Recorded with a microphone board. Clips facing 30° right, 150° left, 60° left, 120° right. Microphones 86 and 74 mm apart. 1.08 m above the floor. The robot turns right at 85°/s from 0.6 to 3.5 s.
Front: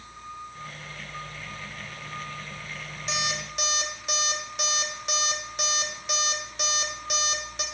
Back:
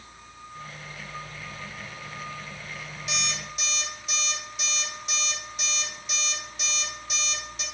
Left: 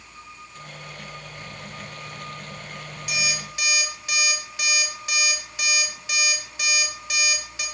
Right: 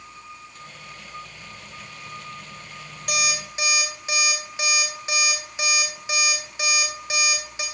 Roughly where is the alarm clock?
Right.